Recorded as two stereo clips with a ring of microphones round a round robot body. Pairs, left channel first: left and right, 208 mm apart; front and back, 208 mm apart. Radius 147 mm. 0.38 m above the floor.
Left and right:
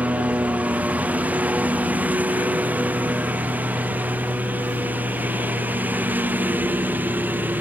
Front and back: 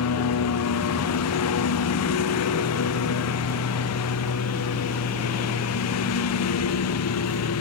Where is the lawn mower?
5° right; by 7.6 s 10° right.